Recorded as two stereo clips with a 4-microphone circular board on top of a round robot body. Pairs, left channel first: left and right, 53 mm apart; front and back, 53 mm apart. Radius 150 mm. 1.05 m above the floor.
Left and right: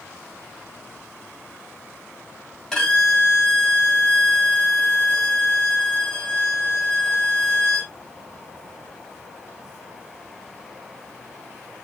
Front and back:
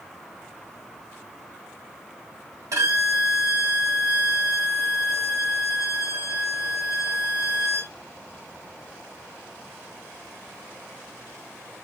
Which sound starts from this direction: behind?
A violin, at 2.7 s.